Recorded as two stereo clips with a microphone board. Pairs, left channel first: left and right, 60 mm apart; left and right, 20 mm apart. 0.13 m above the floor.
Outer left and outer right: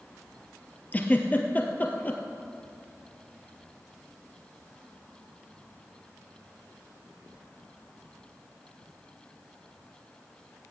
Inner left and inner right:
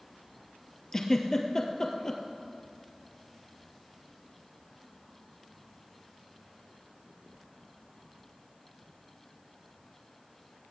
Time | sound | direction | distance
0.9 | a giggle | 25° left (ahead or behind) | 1.6 m